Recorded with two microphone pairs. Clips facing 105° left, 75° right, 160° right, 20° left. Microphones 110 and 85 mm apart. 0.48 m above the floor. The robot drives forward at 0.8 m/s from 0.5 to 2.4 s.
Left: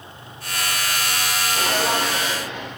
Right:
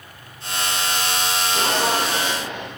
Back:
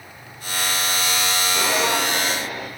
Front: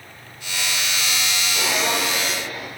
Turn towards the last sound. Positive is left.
turn(degrees=-120)